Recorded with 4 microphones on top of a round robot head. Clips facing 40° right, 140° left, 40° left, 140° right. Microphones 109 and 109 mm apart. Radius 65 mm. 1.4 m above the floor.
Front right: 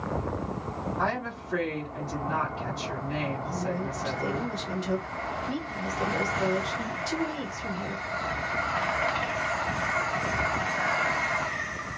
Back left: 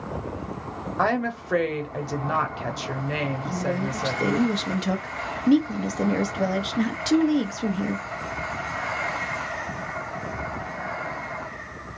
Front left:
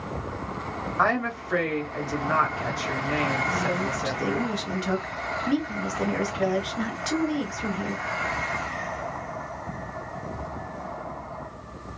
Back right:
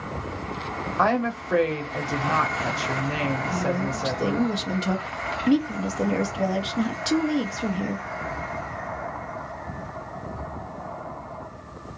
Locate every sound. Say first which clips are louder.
1.0 s a woman speaking: back left 8 dB, back right 2 dB; 155° left, 1.2 m
3.5 s a woman speaking: back left 4 dB, back right 1 dB; 155° left, 0.7 m